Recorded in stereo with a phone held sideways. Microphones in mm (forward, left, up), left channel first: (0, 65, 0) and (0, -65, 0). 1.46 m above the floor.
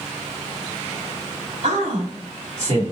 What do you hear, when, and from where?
1.6 s a man speaking: 70° right (ahead or behind), 2.5 m